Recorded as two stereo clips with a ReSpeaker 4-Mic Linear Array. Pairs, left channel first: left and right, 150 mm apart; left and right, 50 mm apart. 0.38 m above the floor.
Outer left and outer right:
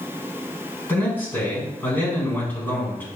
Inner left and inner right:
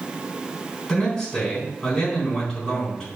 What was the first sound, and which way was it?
A man speaking, 10° left (ahead or behind).